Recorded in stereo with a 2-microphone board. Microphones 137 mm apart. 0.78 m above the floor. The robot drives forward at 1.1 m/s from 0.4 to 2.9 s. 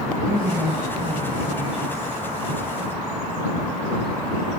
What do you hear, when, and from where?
0.2 s a woman speaking: 30° right (ahead or behind), 5 m; by 2.2 s 25° right (ahead or behind), 6.5 m